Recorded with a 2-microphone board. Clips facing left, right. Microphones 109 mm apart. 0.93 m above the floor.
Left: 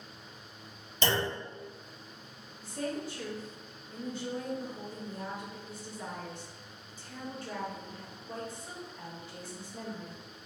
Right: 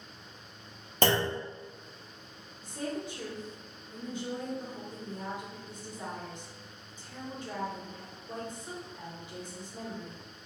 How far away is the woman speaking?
About 1.1 m.